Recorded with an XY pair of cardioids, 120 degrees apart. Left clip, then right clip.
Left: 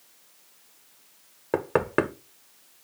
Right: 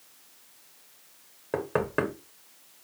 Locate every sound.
1.5 s knocking: 35° left, 0.6 m